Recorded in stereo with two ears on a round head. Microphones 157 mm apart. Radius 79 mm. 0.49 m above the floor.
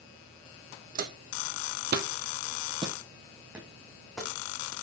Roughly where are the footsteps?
Right.